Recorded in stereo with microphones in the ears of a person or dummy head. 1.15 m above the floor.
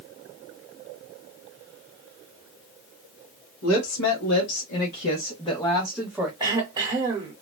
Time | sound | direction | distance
3.6 | a woman speaking | 85° left | 1.5 m
6.4 | throat clearing | 20° right (ahead or behind) | 1.1 m